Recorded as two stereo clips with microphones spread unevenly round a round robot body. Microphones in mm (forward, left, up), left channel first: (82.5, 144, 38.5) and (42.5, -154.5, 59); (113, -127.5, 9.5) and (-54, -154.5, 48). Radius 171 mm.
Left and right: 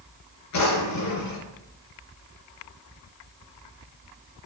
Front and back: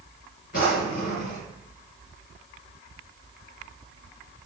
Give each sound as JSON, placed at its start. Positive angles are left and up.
{"t": 0.5, "sound": "a drawer", "azimuth_deg": 60, "distance_m": 4.0}